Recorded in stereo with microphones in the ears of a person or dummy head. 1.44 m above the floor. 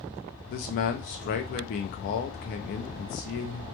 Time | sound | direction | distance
0.5 | a man speaking | 50° left (ahead or behind) | 0.5 m